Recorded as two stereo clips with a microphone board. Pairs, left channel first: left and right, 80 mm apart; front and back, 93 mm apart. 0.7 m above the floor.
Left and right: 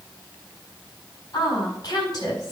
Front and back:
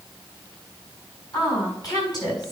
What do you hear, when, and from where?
1.3 s a woman speaking: 45° left, 5 m